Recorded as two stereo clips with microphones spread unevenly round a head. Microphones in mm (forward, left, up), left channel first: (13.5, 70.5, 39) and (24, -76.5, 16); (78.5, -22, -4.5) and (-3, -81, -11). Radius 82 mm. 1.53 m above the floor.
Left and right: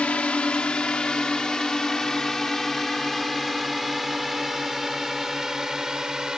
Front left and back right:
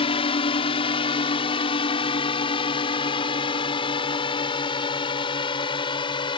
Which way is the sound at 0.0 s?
10° left.